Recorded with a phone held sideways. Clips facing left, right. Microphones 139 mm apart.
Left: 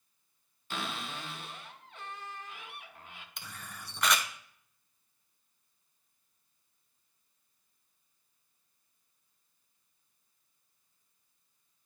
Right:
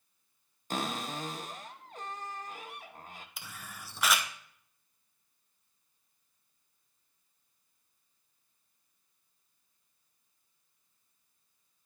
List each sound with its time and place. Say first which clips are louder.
0.7 s a cupboard door: right 4 dB; 40° right (ahead or behind), 0.7 m
3.4 s a camera shutter: even; 5° right (ahead or behind), 0.7 m